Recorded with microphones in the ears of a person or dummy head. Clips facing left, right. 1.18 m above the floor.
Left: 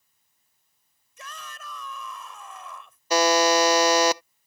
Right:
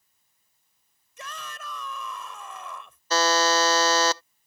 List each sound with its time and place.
1.2 s a shout: 55° right (ahead or behind)
3.1 s a buzzer: 10° left (ahead or behind)